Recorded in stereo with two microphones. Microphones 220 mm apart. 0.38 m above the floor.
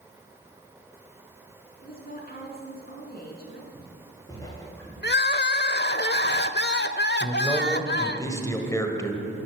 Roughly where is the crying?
Left.